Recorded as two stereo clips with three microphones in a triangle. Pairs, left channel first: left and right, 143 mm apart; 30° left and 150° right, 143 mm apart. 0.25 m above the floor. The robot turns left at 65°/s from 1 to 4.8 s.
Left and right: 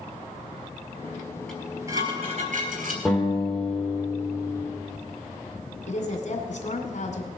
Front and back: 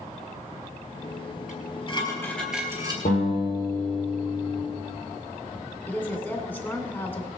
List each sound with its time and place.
1.5 s dishes clattering: 5° left, 3.5 m; by 3.0 s 95° right, 3.5 m
3.0 s a guitar: straight ahead, 5 m; by 4.6 s 105° right, 5 m
5.9 s a woman speaking: 105° left, 2 m